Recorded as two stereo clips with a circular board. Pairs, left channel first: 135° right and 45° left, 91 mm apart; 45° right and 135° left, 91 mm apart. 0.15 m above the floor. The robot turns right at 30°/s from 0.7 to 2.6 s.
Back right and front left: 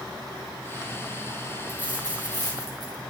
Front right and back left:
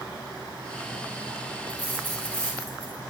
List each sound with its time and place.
1.7 s a dropped coin: 55° left, 8 m; by 3.0 s 85° left, 8 m